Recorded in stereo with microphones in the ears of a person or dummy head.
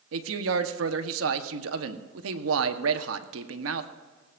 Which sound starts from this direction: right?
A man speaking, at 0.1 s.